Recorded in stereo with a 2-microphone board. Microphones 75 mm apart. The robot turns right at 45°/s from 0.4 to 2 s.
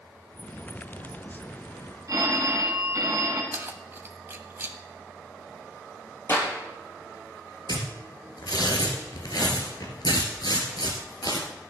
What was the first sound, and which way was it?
A phone ringing, 50° right (ahead or behind).